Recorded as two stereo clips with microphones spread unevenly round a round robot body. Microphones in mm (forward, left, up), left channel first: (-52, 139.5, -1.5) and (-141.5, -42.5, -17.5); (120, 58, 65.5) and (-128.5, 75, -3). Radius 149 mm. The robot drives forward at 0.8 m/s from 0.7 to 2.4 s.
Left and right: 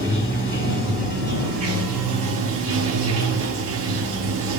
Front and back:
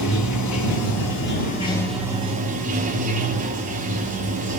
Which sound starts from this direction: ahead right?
Running water, at 0.0 s.